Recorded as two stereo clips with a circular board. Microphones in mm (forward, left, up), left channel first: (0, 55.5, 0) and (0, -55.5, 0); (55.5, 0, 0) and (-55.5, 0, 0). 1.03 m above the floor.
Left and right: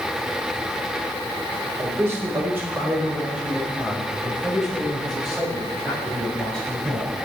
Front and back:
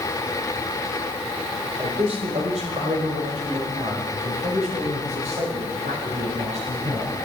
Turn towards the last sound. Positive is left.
turn(degrees=170)